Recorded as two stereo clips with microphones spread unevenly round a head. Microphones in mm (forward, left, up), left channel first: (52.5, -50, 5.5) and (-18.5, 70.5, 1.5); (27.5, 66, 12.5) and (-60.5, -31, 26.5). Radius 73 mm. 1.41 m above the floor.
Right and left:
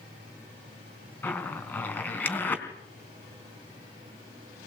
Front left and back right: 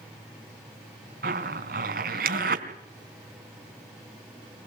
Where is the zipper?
135° right, 3.5 m.